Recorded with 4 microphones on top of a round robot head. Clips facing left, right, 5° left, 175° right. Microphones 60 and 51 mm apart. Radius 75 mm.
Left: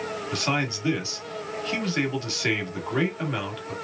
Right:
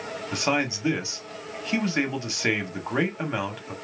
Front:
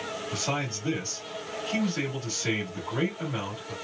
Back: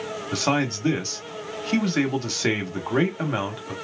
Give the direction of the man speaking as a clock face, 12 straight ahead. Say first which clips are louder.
Right 3 dB, back 9 dB; 5 o'clock.